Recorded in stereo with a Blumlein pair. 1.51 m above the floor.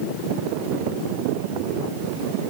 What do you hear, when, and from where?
Only background noise.